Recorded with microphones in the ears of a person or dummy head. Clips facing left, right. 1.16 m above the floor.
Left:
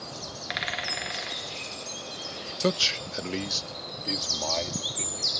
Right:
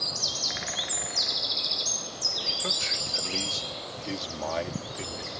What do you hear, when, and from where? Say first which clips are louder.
2.6 s a man speaking: left 13 dB; 55° left (ahead or behind); by 5.3 s 15° right (ahead or behind)